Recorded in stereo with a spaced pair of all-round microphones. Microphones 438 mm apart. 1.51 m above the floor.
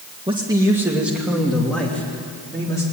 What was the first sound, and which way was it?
A man speaking, 10° right (ahead or behind).